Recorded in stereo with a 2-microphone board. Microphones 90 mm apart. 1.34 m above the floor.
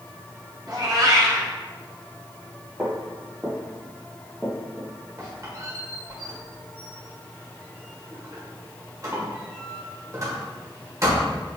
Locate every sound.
0.7 s a cat meowing: 45° right (ahead or behind), 1.0 m
2.8 s footsteps: 25° right (ahead or behind), 1.4 m; by 4.9 s 10° left (ahead or behind), 1.6 m
5.2 s a squeak: 40° right (ahead or behind), 1.3 m